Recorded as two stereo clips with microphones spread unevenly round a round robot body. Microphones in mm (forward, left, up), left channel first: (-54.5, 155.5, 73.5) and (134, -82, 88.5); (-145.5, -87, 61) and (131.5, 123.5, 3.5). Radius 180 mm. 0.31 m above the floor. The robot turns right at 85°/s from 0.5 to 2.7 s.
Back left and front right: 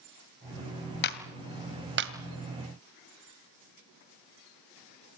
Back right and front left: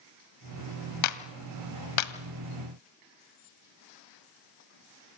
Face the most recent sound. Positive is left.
turn(degrees=-45)